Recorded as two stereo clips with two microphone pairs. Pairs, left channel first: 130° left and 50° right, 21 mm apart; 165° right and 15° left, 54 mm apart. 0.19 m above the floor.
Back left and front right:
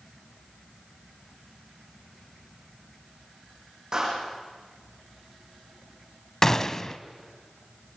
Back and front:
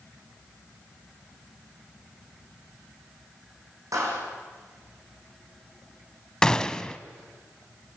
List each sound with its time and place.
3.9 s a clap: 10° left, 8 m
6.4 s a gunshot: 135° left, 0.7 m